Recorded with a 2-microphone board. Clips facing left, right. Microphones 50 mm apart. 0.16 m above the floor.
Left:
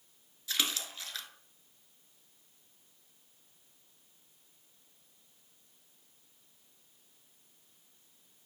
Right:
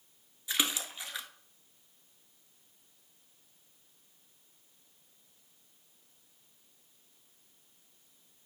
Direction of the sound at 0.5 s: 15° right (ahead or behind).